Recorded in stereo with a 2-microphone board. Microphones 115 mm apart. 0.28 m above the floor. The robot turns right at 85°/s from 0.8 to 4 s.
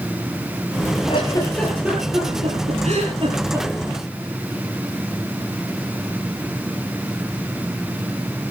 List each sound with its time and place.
1.1 s a giggle: 50° left (ahead or behind), 7 m; by 3.7 s 15° right (ahead or behind), 7 m